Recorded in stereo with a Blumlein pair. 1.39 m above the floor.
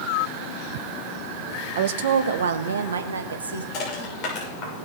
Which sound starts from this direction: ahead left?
Crushing, at 3.7 s.